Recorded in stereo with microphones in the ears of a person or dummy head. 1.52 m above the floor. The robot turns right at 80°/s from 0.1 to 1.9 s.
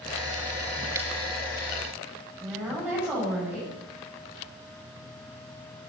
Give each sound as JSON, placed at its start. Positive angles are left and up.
{"t": 0.9, "sound": "scissors", "side_deg": -10, "distance_m": 0.8}
{"t": 2.4, "sound": "a woman speaking", "side_deg": -5, "distance_m": 8.0}